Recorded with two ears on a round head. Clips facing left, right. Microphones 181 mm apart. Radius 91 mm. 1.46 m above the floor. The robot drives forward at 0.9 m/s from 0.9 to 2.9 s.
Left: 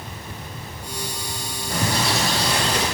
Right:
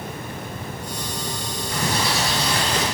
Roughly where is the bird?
Left.